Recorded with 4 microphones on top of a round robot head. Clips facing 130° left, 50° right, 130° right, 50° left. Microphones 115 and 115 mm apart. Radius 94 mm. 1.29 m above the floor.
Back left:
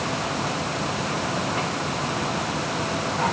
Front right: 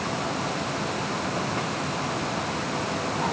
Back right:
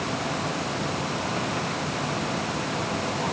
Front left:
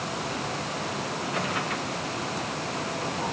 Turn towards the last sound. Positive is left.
No sound to turn to.